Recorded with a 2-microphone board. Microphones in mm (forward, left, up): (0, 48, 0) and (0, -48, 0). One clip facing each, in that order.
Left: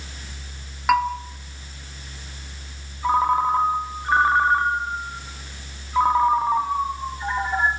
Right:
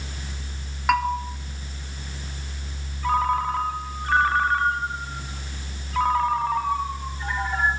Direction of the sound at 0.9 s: 5° left (ahead or behind).